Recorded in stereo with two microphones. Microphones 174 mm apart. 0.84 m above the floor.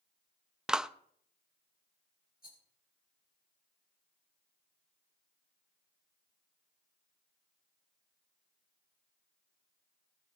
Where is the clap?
5° right (ahead or behind), 0.5 m.